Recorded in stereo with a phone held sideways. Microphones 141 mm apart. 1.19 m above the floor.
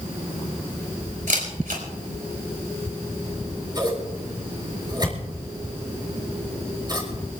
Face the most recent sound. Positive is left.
turn(degrees=-30)  # may be behind; listen again after turning